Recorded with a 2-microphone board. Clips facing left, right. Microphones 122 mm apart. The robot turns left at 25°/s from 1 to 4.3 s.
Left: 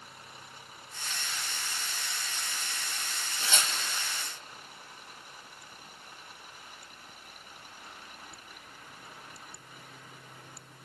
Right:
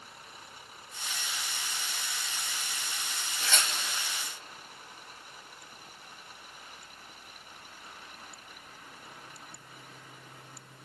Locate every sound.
3.4 s tearing paper: 25° left (ahead or behind), 2.5 m; by 4.1 s 10° left (ahead or behind), 2.5 m